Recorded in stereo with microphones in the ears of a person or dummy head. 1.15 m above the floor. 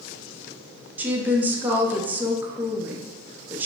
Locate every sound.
1.0 s a woman speaking: 20° right (ahead or behind), 0.7 m